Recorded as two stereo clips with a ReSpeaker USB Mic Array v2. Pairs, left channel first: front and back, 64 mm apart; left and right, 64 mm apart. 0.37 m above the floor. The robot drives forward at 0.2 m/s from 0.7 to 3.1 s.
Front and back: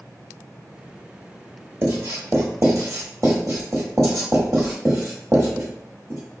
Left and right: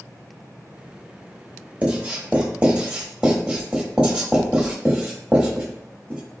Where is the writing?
150° right, 0.9 m; by 6.2 s 160° right, 1.1 m.